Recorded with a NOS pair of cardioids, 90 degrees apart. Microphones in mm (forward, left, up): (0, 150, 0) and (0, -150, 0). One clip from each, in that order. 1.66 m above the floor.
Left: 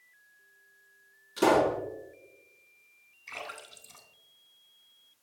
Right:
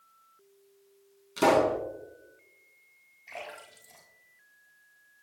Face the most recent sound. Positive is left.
turn(degrees=20)